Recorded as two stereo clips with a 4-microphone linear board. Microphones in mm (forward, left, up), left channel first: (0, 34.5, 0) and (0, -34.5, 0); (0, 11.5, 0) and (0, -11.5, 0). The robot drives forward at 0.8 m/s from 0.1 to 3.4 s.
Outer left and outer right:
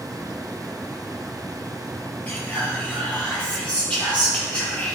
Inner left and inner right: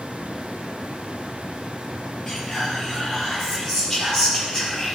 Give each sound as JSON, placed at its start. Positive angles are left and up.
{"t": 2.3, "sound": "whispering", "side_deg": 20, "distance_m": 3.0}